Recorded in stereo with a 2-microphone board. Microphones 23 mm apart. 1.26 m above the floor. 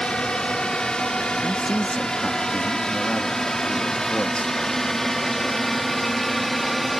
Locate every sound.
0.0 s a drone: 40° left (ahead or behind); by 7.0 s centre (ahead or behind)
1.4 s a man speaking: 45° left (ahead or behind)